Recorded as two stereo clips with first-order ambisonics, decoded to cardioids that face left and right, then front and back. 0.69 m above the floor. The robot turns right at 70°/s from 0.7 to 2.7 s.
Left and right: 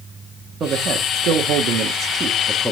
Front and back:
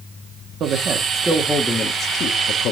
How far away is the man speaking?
About 1.0 m.